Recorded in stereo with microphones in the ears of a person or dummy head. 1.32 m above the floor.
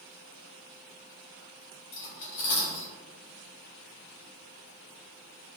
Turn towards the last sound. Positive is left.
turn(degrees=50)  # may be behind; listen again after turning